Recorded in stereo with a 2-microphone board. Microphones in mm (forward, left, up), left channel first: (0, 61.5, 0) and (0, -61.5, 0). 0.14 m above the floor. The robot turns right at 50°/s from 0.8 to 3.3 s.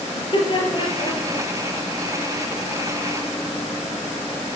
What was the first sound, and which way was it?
Laughter, 40° left (ahead or behind).